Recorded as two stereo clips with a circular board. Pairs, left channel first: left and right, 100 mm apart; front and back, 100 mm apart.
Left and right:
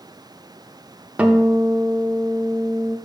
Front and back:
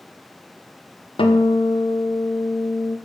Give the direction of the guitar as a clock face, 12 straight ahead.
12 o'clock.